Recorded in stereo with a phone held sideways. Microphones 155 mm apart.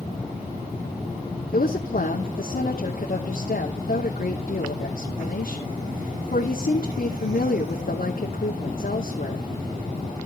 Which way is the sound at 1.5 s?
65° left (ahead or behind).